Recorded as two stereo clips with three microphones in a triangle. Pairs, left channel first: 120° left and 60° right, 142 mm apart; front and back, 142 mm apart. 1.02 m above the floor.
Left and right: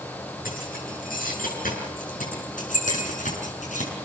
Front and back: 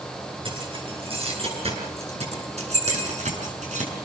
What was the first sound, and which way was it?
Keys jangling, 130° left.